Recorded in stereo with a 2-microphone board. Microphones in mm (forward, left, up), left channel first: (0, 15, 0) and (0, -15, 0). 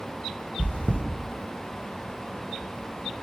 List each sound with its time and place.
0.6 s chewing: 50° left (ahead or behind), 0.6 m